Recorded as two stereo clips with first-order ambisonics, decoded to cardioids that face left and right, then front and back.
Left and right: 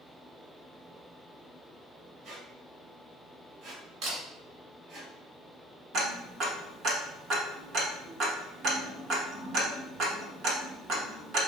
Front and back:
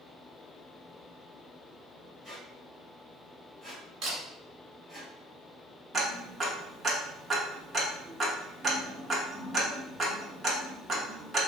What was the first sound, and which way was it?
A squeak, 110° right.